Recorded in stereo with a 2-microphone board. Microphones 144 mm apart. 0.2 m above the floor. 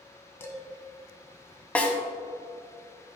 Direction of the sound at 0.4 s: 15° left (ahead or behind).